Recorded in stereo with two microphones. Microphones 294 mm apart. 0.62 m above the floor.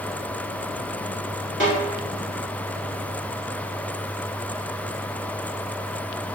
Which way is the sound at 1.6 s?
40° left (ahead or behind).